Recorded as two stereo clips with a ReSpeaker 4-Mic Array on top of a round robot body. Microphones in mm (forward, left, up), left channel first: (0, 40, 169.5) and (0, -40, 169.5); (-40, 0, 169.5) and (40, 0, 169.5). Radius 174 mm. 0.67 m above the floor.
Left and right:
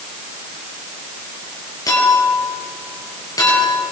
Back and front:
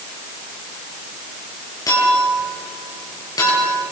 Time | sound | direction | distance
1.9 | a clink | 135° left | 8.5 m